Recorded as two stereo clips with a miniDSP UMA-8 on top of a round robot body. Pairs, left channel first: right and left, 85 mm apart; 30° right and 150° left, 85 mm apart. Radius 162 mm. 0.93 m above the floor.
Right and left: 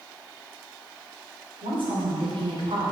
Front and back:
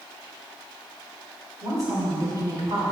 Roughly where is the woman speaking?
Left.